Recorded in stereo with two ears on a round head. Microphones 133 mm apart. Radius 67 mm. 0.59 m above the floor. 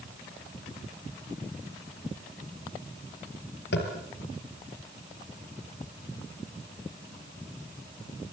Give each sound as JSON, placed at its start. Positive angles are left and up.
{"t": 3.7, "sound": "tapping", "side_deg": 80, "distance_m": 5.0}